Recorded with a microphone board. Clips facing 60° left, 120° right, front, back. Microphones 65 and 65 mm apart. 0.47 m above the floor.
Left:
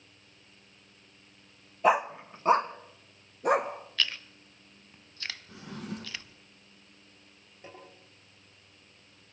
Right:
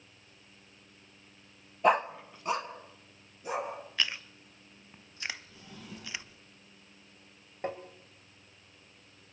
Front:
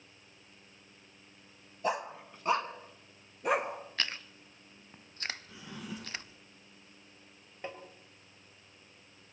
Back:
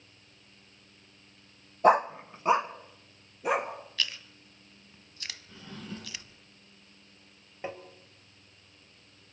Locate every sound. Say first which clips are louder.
1.8 s a dog barking: left 1 dB, back 12 dB; 150° left, 0.6 m; by 3.7 s 90° left, 1.8 m
4.0 s chewing: left 1 dB, back 2 dB; 50° right, 0.6 m
5.5 s a drawer: left 8 dB, back 1 dB; 80° left, 4 m
7.6 s tapping: right 12 dB, back 4 dB; 105° right, 2.5 m